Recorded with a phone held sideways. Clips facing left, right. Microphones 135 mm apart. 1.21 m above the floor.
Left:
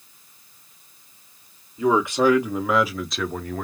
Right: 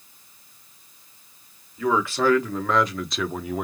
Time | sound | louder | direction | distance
1.8 | a man speaking | left 3 dB | 20° left (ahead or behind) | 1.7 m